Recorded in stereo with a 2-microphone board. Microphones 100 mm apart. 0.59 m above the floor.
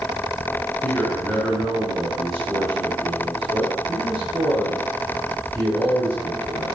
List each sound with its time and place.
0.8 s a man speaking: 5° left (ahead or behind), 8.5 m